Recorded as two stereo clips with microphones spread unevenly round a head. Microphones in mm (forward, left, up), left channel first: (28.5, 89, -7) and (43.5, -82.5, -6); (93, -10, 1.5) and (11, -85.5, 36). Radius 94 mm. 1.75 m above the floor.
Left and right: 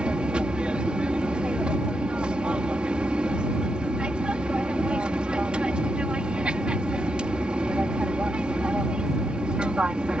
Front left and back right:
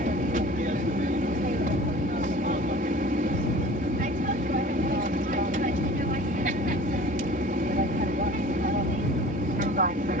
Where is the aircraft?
170° right.